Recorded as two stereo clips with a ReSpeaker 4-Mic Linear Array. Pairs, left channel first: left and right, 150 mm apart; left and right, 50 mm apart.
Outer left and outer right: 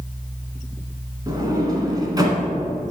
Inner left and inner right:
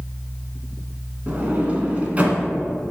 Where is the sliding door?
25° right (ahead or behind), 1.6 m.